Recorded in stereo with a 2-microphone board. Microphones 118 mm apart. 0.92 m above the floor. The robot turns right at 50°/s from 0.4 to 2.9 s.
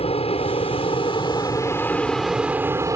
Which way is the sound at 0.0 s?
90° left.